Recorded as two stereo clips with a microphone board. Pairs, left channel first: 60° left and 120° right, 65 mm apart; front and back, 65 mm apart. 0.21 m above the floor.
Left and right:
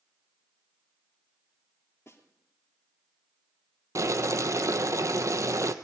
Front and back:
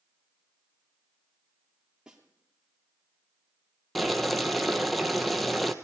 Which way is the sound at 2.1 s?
100° left.